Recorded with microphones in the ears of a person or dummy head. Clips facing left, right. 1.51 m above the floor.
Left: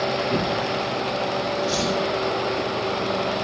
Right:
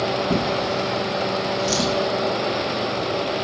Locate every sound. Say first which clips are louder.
0.3 s a drawer: right 2 dB; 65° right (ahead or behind), 1.6 m